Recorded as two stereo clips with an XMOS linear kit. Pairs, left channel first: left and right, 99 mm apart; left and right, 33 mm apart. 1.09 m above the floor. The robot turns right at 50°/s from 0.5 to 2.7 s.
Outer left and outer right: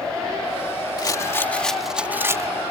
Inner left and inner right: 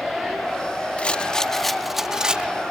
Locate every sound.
1.0 s a rattle: 140° left; by 2.5 s 145° right